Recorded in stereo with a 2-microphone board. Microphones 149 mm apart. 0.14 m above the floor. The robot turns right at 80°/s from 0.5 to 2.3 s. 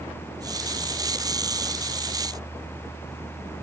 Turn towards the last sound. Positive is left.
No sound to turn to.